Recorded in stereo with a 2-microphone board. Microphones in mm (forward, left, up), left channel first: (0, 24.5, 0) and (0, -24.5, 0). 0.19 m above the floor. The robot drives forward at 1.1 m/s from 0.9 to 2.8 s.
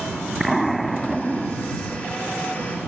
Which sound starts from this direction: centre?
An explosion, at 0.4 s.